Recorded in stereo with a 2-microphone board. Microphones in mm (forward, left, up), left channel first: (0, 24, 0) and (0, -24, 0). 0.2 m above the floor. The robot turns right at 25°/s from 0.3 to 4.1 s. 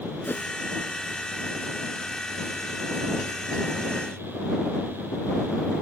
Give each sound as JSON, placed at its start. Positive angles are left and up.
{"t": 0.2, "sound": "a whoosh", "side_deg": 50}